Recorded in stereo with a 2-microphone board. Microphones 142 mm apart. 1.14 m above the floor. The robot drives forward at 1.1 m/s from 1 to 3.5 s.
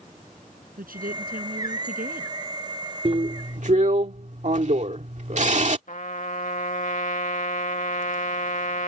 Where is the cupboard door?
I don't hear a cupboard door.